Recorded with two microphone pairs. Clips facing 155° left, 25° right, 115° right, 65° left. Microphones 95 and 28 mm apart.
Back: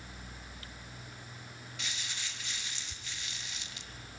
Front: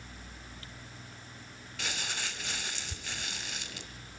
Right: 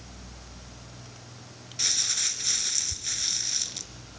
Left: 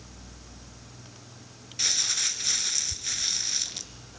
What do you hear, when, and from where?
1.8 s crumpling: 10° right, 0.7 m